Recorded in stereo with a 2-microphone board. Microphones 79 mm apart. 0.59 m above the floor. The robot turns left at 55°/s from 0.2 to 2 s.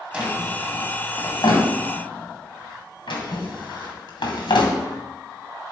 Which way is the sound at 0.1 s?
15° right (ahead or behind).